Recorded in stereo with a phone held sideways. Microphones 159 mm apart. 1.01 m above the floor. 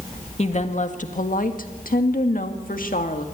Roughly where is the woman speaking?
Left.